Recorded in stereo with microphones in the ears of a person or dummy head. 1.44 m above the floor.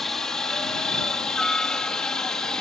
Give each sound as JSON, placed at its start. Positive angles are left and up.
{"t": 0.0, "sound": "a helicopter", "side_deg": 10}